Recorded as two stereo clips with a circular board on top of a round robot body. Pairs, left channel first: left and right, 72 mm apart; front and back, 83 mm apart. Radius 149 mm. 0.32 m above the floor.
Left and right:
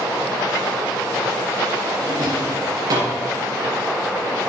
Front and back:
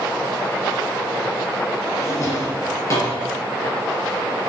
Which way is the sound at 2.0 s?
55° right.